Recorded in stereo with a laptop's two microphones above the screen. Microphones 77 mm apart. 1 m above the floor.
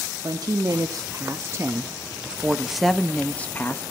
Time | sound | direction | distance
0.2 | a woman speaking | 50° right (ahead or behind) | 1.6 m